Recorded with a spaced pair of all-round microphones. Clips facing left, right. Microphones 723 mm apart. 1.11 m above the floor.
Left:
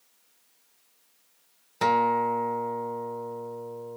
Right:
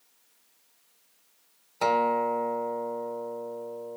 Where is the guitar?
45° left (ahead or behind), 1.2 m.